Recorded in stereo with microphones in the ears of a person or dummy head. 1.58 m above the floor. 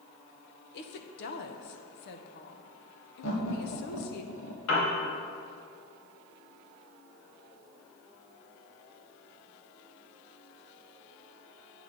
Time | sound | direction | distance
0.7 | a woman speaking | 60° left (ahead or behind) | 0.9 m
3.2 | laughter | 75° left (ahead or behind) | 1.4 m
4.7 | a piano | 85° left | 2.5 m